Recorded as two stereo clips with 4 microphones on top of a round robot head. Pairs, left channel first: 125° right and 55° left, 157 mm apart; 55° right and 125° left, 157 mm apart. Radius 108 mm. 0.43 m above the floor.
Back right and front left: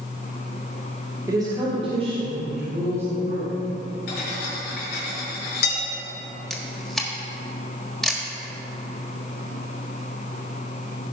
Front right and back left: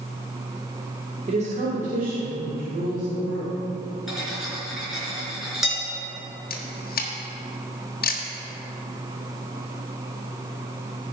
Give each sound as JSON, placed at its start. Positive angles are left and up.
{"t": 1.3, "sound": "a woman speaking", "azimuth_deg": 115, "distance_m": 1.6}
{"t": 4.1, "sound": "cutlery clinking", "azimuth_deg": -145, "distance_m": 3.5}
{"t": 6.5, "sound": "a camera shutter", "azimuth_deg": -40, "distance_m": 1.5}